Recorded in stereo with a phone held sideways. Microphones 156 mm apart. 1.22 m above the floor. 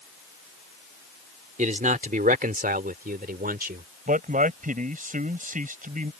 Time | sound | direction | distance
1.6 | a man speaking | 55° right (ahead or behind) | ?
4.1 | a man speaking | 60° right (ahead or behind) | ?